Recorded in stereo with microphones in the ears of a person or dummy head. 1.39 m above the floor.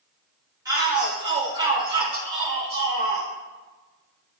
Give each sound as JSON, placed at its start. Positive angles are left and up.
{"t": 0.7, "sound": "a shout", "side_deg": -25, "distance_m": 3.5}